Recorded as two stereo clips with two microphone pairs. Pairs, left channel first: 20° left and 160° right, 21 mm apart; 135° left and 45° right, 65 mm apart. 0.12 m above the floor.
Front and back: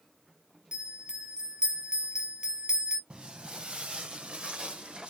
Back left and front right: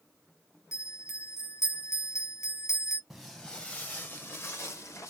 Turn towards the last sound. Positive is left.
turn(degrees=180)